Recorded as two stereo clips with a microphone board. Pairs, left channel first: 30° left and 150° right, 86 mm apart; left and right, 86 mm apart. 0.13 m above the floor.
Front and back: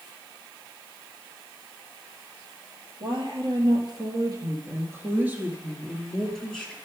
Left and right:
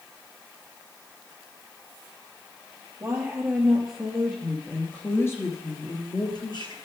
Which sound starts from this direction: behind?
A woman speaking, at 3.0 s.